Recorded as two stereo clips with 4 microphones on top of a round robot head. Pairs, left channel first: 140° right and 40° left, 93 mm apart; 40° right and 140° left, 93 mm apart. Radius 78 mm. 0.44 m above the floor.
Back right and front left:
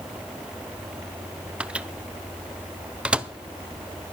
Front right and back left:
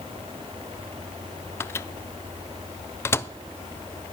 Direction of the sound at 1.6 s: 25° right.